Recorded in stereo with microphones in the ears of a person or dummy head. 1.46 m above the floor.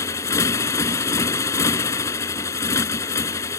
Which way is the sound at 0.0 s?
15° left (ahead or behind).